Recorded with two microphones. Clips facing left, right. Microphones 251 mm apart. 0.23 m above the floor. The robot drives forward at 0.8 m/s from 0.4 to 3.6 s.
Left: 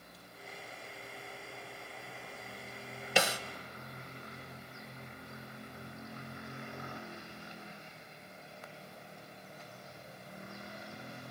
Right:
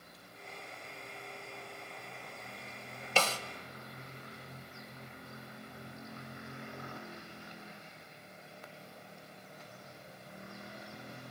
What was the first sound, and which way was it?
A snare drum, 15° left (ahead or behind).